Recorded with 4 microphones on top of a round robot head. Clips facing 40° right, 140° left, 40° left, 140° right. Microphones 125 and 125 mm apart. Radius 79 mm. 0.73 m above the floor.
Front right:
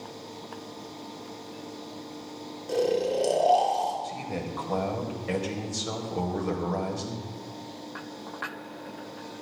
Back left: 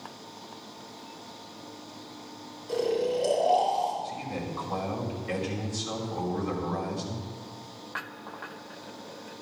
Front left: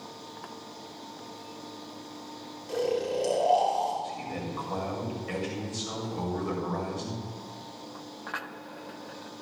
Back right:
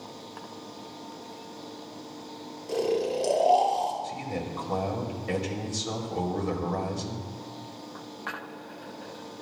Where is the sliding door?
I don't hear a sliding door.